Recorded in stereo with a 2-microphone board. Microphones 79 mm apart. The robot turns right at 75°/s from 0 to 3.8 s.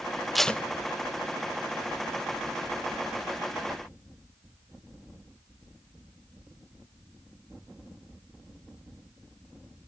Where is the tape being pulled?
Centre (ahead or behind), 0.7 m; by 0.6 s 20° left (ahead or behind), 0.7 m.